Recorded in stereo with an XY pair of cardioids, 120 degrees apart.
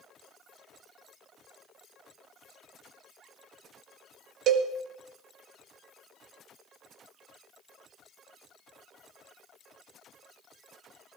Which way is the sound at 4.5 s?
70° right.